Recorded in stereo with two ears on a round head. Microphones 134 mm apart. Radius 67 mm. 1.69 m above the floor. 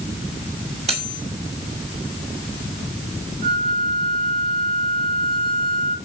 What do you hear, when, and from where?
0.9 s cutlery clinking: 45° right (ahead or behind), 5.5 m
3.4 s a flute: 45° right (ahead or behind), 1.5 m